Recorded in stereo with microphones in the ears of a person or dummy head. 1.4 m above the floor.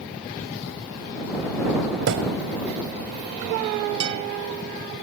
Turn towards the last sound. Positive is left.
turn(degrees=-65)  # may be behind; listen again after turning